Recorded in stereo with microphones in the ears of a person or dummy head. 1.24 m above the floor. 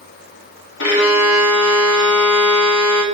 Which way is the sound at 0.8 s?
85° left.